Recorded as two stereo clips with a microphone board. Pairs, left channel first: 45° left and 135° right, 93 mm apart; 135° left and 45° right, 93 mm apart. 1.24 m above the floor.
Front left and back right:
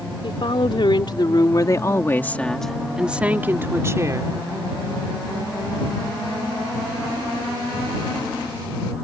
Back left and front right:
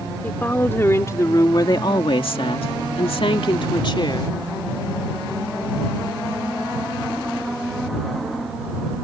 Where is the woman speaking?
65° left; by 4.3 s 170° left.